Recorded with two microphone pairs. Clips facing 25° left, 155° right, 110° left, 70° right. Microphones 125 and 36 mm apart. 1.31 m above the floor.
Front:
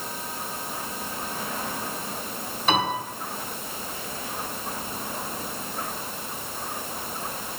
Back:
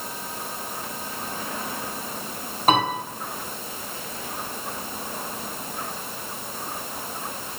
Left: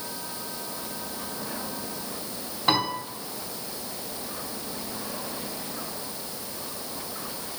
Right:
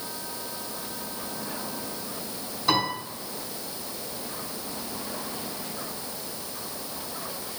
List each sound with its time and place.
2.7 s a piano: 160° left, 3.5 m